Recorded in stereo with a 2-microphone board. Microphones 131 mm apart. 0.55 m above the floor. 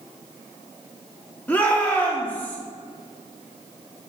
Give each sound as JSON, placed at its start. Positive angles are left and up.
{"t": 1.5, "sound": "a shout", "side_deg": 10, "distance_m": 1.2}